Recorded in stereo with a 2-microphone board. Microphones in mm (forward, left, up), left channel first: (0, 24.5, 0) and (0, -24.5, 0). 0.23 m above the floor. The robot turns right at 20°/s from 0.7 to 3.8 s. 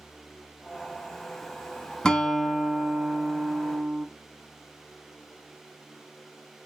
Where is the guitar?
160° left, 0.7 m; by 4.1 s 165° right, 0.7 m.